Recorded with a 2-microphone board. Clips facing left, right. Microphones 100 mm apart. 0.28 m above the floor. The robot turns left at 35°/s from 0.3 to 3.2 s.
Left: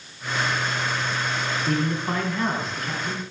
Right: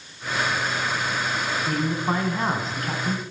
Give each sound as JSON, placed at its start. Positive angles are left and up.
{"t": 1.7, "sound": "a man speaking", "azimuth_deg": -5, "distance_m": 2.5}